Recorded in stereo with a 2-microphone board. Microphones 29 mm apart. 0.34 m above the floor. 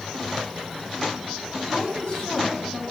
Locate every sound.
1.7 s a woman speaking: 65° left (ahead or behind), 2.5 m; by 2.8 s 55° left (ahead or behind), 2.5 m